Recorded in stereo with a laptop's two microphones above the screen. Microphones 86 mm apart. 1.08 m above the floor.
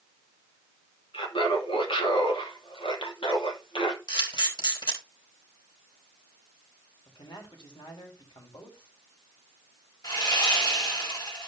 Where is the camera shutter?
60° left (ahead or behind), 3.5 m.